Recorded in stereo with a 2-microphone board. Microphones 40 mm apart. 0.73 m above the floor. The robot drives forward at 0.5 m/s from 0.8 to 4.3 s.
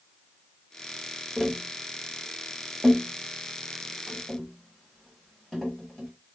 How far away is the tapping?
About 1.0 m.